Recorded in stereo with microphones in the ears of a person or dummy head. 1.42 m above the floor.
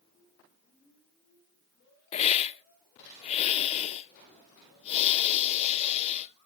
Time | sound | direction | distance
2.1 | a hiss | 35° left (ahead or behind) | 0.6 m